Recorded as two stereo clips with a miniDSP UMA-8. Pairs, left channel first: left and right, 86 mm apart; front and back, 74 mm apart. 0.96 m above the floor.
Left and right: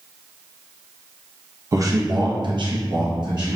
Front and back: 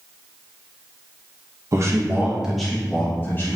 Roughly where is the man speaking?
Behind right.